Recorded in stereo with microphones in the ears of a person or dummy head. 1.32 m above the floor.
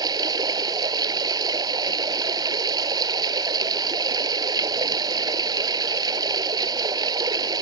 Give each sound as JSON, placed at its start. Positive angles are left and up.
{"t": 0.0, "sound": "running water", "side_deg": -20}